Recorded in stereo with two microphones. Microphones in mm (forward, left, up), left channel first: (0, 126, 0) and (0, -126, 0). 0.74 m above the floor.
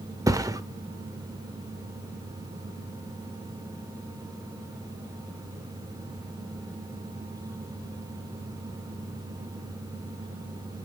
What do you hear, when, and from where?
0.3 s a thud: 15° right (ahead or behind), 0.8 m